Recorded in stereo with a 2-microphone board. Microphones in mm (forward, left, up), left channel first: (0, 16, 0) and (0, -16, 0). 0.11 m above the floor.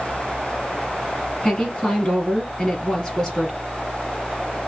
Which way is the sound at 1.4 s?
25° left (ahead or behind).